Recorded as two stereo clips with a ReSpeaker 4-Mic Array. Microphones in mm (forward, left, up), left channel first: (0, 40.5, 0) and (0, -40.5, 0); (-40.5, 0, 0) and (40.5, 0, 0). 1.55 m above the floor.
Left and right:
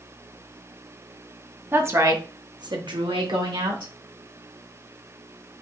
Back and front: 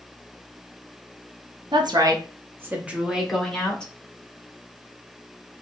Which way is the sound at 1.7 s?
25° right.